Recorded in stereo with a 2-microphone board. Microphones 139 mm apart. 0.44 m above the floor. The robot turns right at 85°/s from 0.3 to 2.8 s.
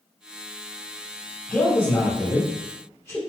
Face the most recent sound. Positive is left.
turn(degrees=20)  # may be behind; listen again after turning